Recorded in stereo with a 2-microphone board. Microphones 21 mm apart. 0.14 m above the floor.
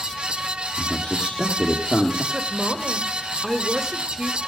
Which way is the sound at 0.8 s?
70° left (ahead or behind).